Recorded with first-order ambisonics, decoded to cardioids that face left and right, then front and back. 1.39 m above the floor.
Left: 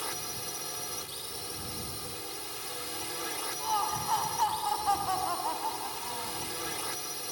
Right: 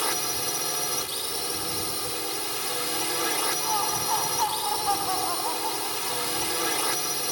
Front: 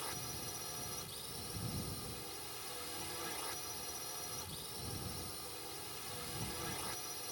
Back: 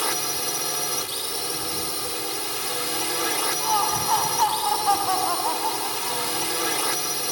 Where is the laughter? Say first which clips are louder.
Right 4 dB, back 24 dB; 175° right.